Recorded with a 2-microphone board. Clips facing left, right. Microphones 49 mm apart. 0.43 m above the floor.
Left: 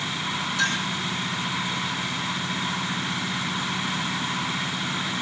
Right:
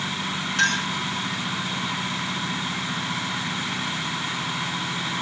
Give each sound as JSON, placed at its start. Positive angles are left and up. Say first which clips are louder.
{"t": 0.6, "sound": "a clink", "louder": "right 4 dB", "side_deg": -50, "distance_m": 3.0}